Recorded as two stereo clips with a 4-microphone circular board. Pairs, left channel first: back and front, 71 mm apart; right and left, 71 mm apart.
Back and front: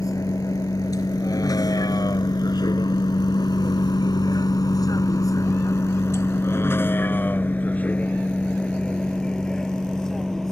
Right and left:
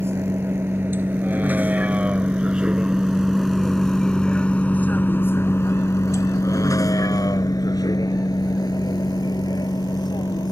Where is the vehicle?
145° left; by 10.5 s 95° right.